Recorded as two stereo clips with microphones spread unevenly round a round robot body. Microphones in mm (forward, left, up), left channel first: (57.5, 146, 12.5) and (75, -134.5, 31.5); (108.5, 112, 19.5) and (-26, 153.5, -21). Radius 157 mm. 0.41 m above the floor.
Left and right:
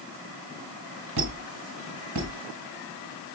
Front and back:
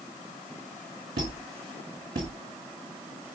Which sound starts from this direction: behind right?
A squeak, at 1.2 s.